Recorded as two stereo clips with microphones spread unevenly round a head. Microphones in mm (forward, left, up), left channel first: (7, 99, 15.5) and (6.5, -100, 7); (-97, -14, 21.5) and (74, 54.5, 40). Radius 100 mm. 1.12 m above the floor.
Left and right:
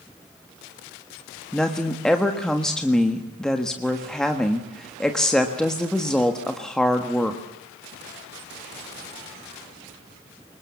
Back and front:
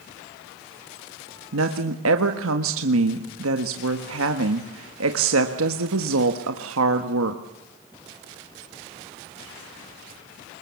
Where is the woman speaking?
5° left, 1.5 m.